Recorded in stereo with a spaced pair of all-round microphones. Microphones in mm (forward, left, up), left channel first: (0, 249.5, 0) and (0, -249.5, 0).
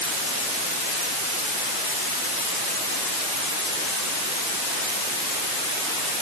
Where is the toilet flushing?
No toilet flushing in this recording.